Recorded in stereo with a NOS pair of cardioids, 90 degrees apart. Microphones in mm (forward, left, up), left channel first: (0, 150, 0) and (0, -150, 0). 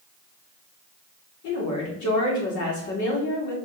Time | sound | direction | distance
1.4 | a woman speaking | 70° left | 2.5 m